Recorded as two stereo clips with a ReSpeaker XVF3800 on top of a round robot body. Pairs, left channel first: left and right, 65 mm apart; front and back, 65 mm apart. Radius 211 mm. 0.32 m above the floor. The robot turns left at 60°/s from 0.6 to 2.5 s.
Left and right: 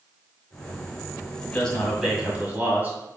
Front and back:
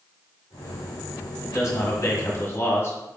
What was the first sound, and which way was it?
A man speaking, 30° left.